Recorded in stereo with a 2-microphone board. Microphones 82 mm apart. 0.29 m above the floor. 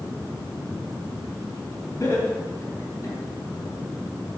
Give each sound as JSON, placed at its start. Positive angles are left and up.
{"t": 2.0, "sound": "laughter", "side_deg": 40, "distance_m": 3.5}